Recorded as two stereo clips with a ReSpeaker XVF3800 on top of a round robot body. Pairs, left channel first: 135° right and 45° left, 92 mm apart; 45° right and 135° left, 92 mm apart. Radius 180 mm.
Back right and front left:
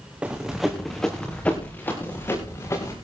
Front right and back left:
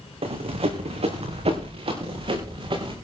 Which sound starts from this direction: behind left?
Running footsteps, at 0.2 s.